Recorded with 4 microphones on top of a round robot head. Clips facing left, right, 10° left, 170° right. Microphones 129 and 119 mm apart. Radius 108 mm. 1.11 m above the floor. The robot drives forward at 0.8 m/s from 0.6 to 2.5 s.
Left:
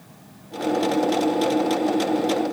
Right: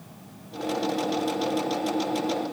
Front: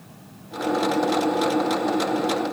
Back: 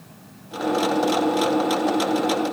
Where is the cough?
No cough in this recording.